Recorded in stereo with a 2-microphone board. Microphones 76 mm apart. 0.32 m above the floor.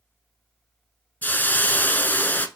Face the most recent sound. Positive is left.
turn(degrees=25)  # may be behind; listen again after turning